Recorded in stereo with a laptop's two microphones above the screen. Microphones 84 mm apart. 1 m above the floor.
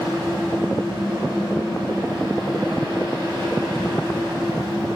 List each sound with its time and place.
0.0 s a fan: 75° right (ahead or behind), 2.0 m